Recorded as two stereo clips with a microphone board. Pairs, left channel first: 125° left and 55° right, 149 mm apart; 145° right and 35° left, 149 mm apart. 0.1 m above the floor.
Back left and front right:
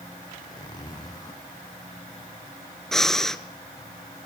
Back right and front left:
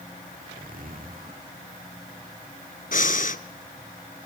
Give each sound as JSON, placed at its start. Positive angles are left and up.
{"t": 0.3, "sound": "a zipper", "azimuth_deg": 60, "distance_m": 4.0}
{"t": 2.9, "sound": "breathing", "azimuth_deg": -150, "distance_m": 1.0}